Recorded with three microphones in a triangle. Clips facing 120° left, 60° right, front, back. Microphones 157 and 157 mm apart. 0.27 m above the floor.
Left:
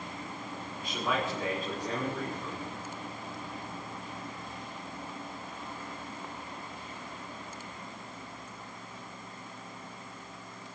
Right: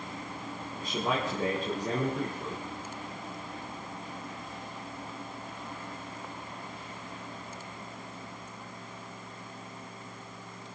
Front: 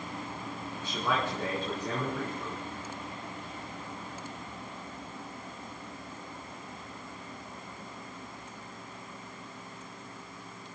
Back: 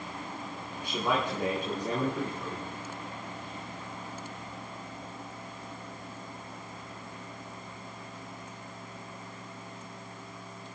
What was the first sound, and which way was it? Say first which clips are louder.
A man speaking: right 1 dB, back 2 dB; 105° right.